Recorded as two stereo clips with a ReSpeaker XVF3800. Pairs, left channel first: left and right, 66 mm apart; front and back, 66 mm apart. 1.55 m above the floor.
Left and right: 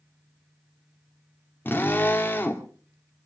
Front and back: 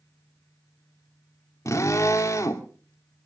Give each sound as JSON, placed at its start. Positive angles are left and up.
{"t": 1.6, "sound": "a drill", "azimuth_deg": 30, "distance_m": 2.0}